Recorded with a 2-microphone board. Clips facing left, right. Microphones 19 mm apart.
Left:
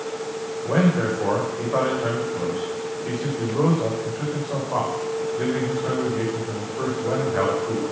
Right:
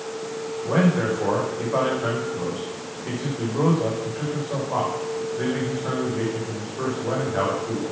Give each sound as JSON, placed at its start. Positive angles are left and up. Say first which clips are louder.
{"t": 0.7, "sound": "a man speaking", "louder": "even", "side_deg": 5, "distance_m": 7.0}